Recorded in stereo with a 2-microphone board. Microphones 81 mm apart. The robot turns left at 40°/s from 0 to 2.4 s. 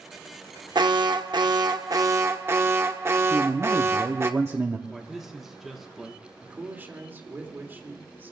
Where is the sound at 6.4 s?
25° right (ahead or behind), 2 m.